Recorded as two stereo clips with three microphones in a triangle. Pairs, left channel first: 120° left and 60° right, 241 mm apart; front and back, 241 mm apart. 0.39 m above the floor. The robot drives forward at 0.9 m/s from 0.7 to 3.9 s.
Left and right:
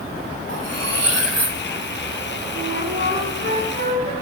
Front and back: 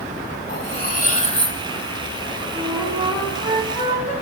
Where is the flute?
100° right, 10 m; by 4.1 s 110° right, 10 m.